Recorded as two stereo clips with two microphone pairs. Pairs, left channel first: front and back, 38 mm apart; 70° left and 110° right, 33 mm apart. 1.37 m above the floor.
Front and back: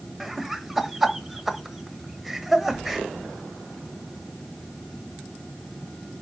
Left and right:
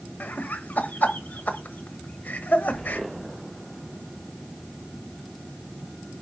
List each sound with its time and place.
0.2 s laughter: 95° left, 1.4 m